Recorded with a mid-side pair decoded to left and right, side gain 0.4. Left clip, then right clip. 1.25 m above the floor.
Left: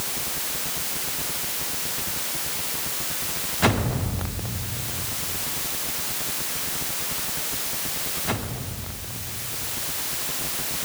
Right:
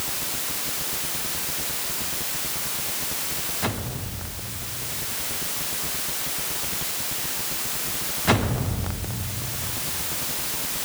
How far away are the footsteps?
No footsteps in this recording.